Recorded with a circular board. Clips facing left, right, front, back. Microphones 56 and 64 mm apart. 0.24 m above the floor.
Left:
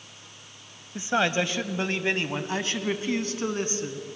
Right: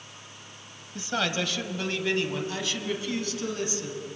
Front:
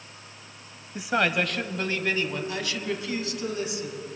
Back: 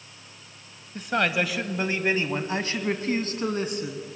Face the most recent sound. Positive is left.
turn(degrees=145)